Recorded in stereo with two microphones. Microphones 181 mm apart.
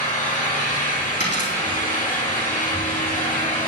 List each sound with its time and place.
0.0 s an engine running: 50° left (ahead or behind), 2.5 m
1.2 s a dropped coin: 85° left, 3 m